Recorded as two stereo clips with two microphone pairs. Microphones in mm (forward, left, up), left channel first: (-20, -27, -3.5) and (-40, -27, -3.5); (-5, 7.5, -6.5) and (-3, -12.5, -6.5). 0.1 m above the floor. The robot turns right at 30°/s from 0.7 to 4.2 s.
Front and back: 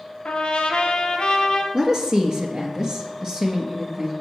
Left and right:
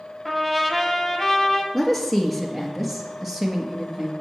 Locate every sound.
0.2 s a trumpet: 15° left, 0.9 m; by 1.6 s 40° left, 0.9 m
1.7 s a woman speaking: 165° left, 1.3 m; by 4.1 s 120° right, 1.3 m